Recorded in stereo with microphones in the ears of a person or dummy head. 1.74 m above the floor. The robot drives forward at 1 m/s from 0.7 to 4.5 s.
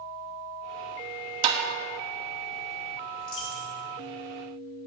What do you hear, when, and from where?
1.4 s tapping: 35° right (ahead or behind), 1.7 m
3.2 s a dropped coin: 45° left (ahead or behind), 1.8 m; by 3.8 s 35° left (ahead or behind), 2 m